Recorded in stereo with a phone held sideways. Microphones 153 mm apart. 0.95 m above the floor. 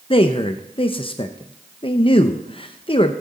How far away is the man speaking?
About 0.6 m.